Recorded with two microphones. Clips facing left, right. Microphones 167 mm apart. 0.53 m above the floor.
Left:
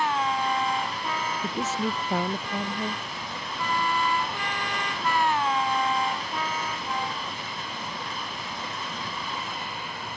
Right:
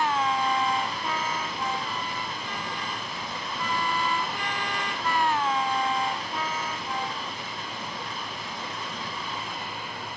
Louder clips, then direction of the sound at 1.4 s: Left 4 dB; 85° left.